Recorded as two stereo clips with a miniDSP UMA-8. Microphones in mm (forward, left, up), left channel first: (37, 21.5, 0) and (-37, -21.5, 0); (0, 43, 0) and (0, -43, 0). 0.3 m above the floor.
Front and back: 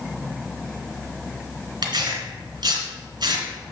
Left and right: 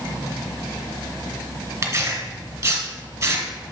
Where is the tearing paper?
130° right, 1.7 m.